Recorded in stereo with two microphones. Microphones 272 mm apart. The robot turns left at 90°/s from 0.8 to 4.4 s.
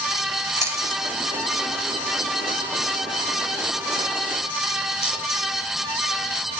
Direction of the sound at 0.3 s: 10° right (ahead or behind).